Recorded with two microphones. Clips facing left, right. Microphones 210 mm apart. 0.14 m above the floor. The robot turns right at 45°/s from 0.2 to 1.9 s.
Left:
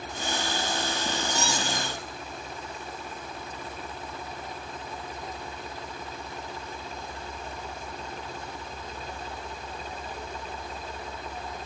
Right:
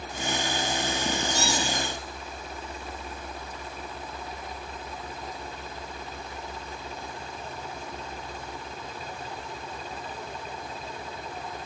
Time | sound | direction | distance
1.3 | a squeak | 45° right (ahead or behind) | 4.5 m